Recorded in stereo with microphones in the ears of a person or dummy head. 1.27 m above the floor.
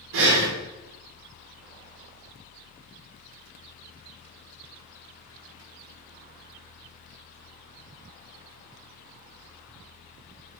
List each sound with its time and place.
0.1 s breathing: 75° right (ahead or behind), 2 m